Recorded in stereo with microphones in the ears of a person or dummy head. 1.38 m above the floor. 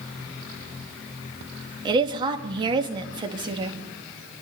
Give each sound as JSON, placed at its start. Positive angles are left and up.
{"t": 1.9, "sound": "a woman speaking", "side_deg": -25, "distance_m": 1.7}